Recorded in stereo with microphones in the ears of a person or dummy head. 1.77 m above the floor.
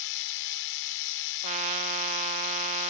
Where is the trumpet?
25° right (ahead or behind).